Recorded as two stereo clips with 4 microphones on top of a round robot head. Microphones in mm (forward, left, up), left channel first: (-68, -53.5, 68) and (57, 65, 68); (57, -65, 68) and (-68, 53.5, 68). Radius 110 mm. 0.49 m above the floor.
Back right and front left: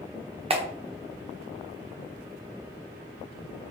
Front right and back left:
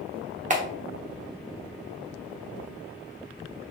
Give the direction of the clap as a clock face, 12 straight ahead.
9 o'clock.